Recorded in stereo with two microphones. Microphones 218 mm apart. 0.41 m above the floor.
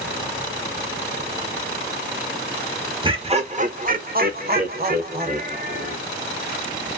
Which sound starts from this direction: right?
Laughter, at 3.0 s.